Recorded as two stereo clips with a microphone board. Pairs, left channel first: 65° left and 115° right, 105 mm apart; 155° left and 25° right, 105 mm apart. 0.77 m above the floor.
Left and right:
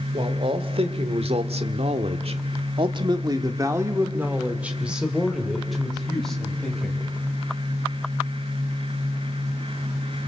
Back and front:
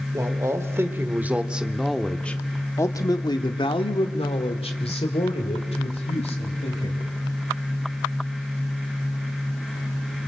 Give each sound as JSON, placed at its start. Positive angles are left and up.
{"t": 0.1, "sound": "a man speaking", "azimuth_deg": -80, "distance_m": 2.5}